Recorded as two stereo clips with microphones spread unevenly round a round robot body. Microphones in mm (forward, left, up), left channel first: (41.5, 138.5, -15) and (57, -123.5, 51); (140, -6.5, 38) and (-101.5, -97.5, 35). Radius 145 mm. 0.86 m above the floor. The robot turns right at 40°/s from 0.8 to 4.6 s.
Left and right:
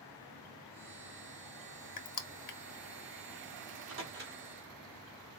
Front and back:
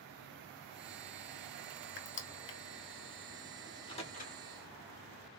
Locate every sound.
2.0 s crushing: 65° left, 1.0 m; by 2.6 s 90° left, 1.0 m
3.7 s a microwave: 60° right, 2 m; by 4.4 s 30° right, 2 m